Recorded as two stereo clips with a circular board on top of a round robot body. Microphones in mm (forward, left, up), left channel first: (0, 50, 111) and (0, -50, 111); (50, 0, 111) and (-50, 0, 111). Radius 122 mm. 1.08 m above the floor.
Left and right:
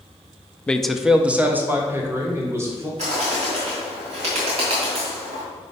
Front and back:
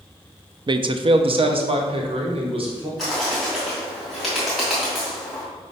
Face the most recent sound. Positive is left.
turn(degrees=-90)